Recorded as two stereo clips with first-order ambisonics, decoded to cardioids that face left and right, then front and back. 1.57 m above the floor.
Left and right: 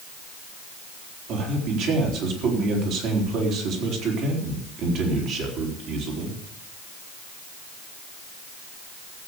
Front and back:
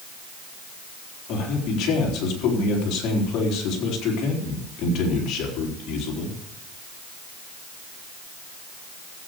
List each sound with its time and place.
1.3 s a man speaking: 50° right, 3.5 m